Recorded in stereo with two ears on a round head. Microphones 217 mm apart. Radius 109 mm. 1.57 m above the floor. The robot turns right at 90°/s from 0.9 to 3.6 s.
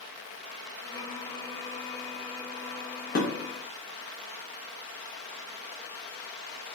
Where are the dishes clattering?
40° left (ahead or behind), 1.3 m; by 3.3 s 35° left (ahead or behind), 1.3 m.